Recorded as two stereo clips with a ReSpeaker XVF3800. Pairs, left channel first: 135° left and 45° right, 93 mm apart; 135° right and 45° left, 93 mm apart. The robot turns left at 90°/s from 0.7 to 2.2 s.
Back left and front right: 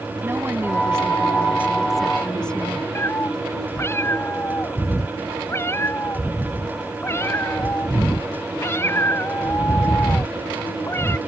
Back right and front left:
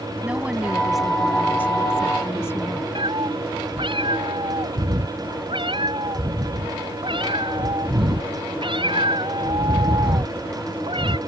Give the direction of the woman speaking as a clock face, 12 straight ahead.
1 o'clock.